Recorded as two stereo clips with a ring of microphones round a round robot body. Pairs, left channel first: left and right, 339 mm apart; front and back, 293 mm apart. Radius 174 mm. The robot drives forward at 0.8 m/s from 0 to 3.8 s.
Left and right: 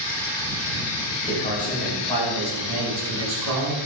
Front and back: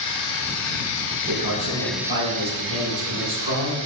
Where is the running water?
25° left, 1.7 m; by 3.9 s 155° left, 1.7 m.